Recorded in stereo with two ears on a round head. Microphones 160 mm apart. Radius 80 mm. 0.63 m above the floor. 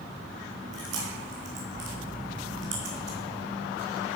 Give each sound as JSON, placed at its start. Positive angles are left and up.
{"t": 0.7, "sound": "chewing", "side_deg": -80, "distance_m": 3.0}